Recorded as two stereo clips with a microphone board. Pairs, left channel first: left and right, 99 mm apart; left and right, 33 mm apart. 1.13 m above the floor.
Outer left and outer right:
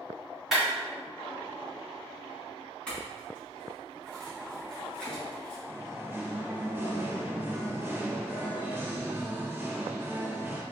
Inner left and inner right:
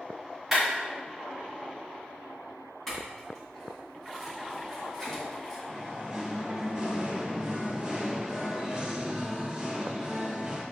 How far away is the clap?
About 2.0 m.